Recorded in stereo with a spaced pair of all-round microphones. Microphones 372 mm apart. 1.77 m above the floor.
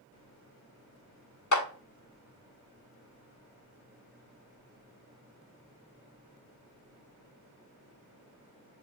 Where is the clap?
50° left (ahead or behind), 0.6 m.